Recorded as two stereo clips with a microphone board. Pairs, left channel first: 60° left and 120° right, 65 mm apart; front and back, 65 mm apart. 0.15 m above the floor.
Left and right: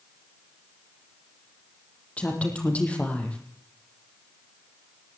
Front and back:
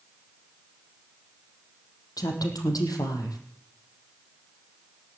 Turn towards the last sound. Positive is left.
turn(degrees=-10)